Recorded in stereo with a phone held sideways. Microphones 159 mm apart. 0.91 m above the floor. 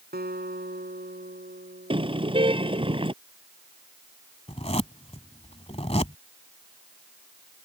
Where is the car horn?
35° right (ahead or behind).